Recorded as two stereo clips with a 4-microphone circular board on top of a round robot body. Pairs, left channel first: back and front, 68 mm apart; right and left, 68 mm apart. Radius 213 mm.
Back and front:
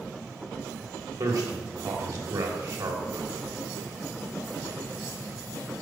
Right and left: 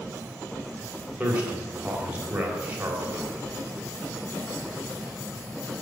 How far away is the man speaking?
About 3 m.